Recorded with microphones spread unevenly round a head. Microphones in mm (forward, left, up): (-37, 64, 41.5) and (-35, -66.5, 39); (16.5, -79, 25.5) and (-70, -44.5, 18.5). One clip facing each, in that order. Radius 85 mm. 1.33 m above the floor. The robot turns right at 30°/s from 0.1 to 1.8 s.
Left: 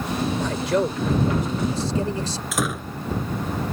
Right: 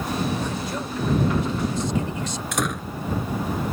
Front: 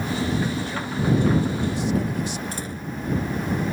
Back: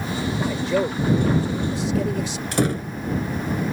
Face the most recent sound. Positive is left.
turn(degrees=175)